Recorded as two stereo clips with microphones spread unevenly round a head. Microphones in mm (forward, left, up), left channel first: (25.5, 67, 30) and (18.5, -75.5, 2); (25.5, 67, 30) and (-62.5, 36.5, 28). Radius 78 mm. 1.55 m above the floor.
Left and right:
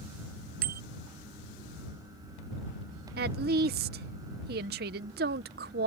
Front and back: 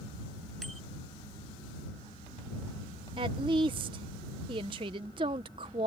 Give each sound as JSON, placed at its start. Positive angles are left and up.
{"t": 0.6, "sound": "a bicycle bell", "azimuth_deg": -70}
{"t": 3.2, "sound": "a woman speaking", "azimuth_deg": -110}